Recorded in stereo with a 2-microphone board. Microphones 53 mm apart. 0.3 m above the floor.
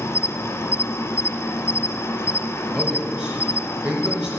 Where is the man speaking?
20° right (ahead or behind), 4 m.